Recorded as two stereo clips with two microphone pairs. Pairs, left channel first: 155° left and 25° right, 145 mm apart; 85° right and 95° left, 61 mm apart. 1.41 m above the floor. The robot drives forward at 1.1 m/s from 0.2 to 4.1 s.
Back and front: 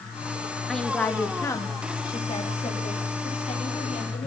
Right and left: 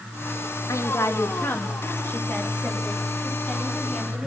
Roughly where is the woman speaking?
Behind right.